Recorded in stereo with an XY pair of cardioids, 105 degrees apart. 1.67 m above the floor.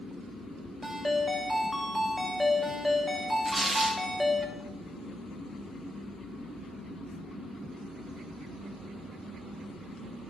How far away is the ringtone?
About 2.5 m.